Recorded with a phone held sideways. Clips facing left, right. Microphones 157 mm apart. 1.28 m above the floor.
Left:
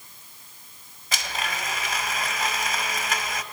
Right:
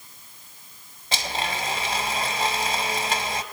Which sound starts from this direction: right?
A blender, at 1.1 s.